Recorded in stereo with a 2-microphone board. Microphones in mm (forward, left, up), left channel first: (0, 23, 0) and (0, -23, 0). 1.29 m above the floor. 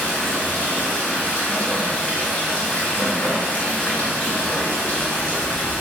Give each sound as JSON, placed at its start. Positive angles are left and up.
{"t": 0.0, "sound": "running water", "side_deg": 30, "distance_m": 1.7}